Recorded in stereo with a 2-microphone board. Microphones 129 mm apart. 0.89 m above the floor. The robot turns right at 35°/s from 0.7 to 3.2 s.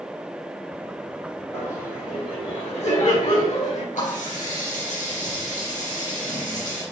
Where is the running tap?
85° left, 4 m.